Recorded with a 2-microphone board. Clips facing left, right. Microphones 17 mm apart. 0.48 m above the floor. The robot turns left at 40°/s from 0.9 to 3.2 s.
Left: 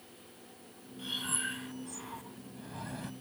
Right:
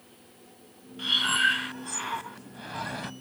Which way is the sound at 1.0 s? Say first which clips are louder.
Right 13 dB; 50° right.